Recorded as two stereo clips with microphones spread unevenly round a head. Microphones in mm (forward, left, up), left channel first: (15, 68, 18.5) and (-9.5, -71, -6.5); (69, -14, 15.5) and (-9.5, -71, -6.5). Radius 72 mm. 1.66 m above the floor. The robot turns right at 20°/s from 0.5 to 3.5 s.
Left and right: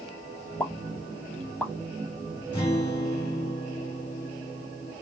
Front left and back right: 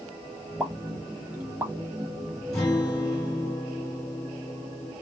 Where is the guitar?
80° left, 1.5 m; by 4.9 s 100° left, 1.5 m.